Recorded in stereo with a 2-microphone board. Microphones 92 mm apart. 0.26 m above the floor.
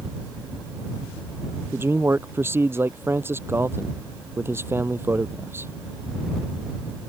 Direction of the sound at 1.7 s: 25° right (ahead or behind).